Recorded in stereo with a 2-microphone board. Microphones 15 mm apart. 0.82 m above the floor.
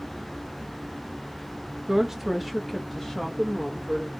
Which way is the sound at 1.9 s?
40° right (ahead or behind).